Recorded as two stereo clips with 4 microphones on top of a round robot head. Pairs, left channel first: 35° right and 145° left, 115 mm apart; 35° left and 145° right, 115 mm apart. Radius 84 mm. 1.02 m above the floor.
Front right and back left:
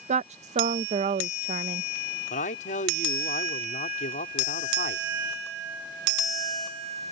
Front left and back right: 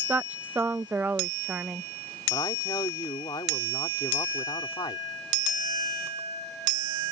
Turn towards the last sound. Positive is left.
turn(degrees=-25)